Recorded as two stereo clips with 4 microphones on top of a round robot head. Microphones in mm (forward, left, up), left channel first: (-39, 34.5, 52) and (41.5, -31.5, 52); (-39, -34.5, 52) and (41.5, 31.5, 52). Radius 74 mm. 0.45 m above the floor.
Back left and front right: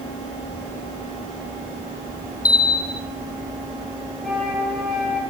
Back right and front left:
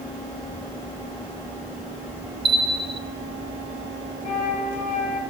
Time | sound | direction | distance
2.5 | a bell | 85° left | 0.7 m
4.2 | a flute | 130° right | 8.5 m